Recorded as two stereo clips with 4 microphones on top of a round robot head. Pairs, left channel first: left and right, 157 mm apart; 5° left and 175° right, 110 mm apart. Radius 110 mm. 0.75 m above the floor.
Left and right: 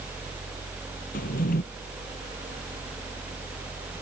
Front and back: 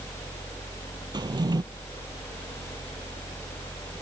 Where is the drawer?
135° left.